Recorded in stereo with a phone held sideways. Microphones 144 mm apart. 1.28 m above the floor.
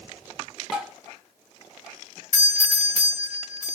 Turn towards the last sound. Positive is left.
turn(degrees=60)  # may be behind; listen again after turning